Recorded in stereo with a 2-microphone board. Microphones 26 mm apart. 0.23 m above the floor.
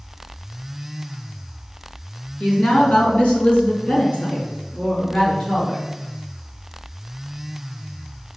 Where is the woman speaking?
55° left (ahead or behind), 2 m; by 5.8 s 50° left (ahead or behind), 3.5 m.